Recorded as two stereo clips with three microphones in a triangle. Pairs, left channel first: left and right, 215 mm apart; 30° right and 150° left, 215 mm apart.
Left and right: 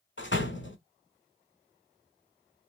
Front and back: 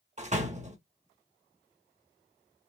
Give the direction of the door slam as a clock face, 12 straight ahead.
9 o'clock.